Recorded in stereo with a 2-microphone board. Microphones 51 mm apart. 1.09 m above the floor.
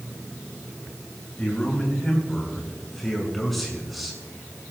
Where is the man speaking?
15° left (ahead or behind), 9 m; by 4.2 s 5° right (ahead or behind), 7.5 m.